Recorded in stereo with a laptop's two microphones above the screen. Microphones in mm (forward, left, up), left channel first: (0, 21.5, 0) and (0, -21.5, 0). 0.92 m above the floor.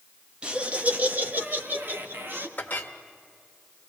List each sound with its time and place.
0.4 s laughter: 25° right (ahead or behind), 1.3 m; by 2.5 s 60° right (ahead or behind), 3 m
2.6 s a clink: 45° left (ahead or behind), 1.5 m